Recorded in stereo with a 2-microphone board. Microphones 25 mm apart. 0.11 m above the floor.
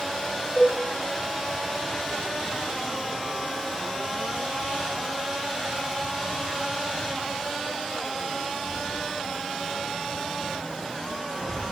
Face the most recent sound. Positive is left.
turn(degrees=55)  # may be behind; listen again after turning